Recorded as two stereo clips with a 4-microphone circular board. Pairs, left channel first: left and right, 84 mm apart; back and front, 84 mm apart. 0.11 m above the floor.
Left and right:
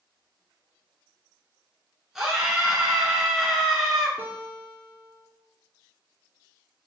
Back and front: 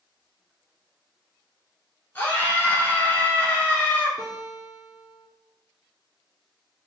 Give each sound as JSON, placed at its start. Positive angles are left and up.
{"t": 2.1, "sound": "a scream", "azimuth_deg": -165, "distance_m": 1.4}
{"t": 4.2, "sound": "a guitar", "azimuth_deg": -155, "distance_m": 1.6}